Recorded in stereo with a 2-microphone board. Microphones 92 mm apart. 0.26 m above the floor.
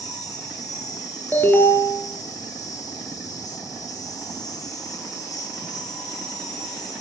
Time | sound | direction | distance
0.0 | an insect | 40° left (ahead or behind) | 8.5 m
1.3 | an alarm | 20° left (ahead or behind) | 4.5 m